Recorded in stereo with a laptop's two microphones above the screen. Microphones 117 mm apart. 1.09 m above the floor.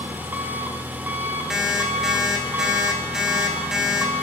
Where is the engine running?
15° right (ahead or behind), 0.7 m.